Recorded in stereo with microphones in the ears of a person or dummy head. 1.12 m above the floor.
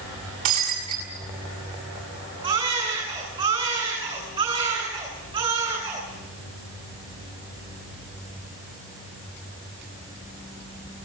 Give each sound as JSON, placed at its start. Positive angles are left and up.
{"t": 0.5, "sound": "breaking glass", "side_deg": -50, "distance_m": 6.5}
{"t": 2.4, "sound": "a baby crying", "side_deg": -30, "distance_m": 8.5}